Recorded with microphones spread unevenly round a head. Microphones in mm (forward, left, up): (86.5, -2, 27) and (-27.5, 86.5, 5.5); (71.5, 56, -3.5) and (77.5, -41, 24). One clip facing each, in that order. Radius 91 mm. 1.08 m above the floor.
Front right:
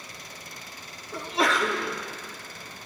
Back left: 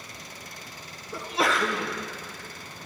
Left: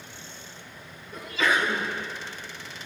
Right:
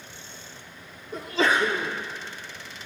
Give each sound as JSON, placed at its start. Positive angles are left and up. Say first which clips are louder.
{"t": 1.1, "sound": "a sneeze", "louder": "front right 1 dB, right 2 dB", "azimuth_deg": -150, "distance_m": 0.6}